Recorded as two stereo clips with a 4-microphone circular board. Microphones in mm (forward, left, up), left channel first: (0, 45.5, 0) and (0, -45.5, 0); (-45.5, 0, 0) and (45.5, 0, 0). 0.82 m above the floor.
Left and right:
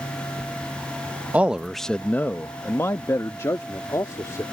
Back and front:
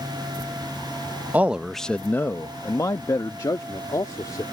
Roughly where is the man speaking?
Ahead right.